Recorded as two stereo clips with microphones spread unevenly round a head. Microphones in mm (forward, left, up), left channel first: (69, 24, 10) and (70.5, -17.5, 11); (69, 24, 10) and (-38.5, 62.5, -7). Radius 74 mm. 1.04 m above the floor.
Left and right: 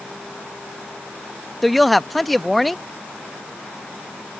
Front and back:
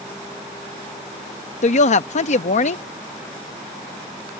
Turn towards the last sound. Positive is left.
turn(degrees=5)